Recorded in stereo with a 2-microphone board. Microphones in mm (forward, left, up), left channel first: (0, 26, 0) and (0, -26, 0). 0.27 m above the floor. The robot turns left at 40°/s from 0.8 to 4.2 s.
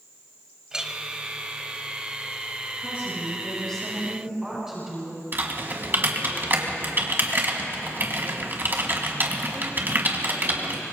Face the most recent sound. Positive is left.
turn(degrees=-45)  # may be behind; listen again after turning